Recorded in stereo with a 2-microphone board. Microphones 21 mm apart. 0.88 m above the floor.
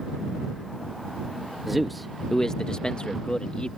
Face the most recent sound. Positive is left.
turn(degrees=50)  # may be behind; listen again after turning